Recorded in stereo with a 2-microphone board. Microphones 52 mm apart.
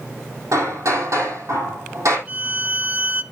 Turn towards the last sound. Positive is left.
turn(degrees=-30)  # may be behind; listen again after turning